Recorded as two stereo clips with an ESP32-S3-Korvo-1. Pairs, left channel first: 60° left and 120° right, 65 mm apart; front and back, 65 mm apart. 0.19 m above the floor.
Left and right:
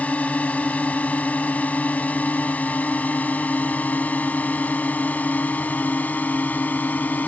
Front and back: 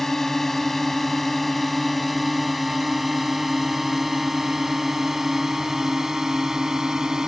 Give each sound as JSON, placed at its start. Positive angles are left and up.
{"t": 0.0, "sound": "a drone", "azimuth_deg": 75}